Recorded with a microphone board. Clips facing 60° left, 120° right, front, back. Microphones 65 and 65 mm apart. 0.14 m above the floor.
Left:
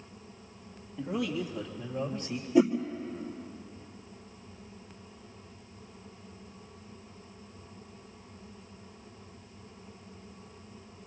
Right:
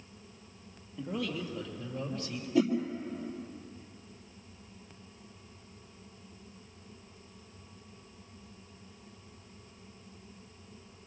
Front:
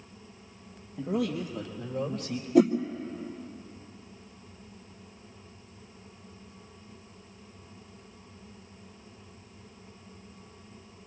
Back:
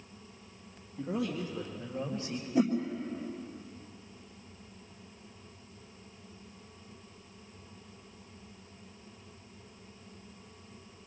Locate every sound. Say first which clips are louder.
1.0 s a man speaking: left 3 dB, front 4 dB; 25° right, 3 m; by 2.5 s 10° right, 4.5 m
2.5 s a whoosh: left 4 dB, front 7 dB; 10° right, 2 m